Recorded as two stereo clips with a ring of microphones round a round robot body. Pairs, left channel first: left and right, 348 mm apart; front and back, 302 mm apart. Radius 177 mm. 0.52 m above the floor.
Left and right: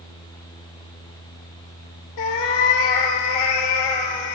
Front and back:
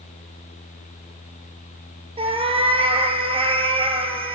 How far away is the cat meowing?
About 1.5 m.